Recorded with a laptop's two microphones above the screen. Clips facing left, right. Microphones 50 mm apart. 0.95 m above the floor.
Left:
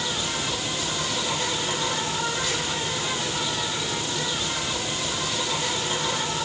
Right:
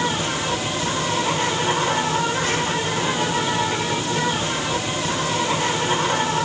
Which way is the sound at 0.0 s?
40° right (ahead or behind).